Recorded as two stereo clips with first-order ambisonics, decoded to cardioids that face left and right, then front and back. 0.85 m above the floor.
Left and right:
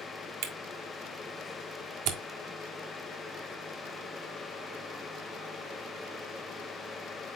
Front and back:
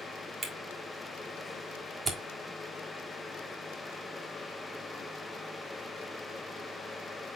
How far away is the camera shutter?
About 1.4 m.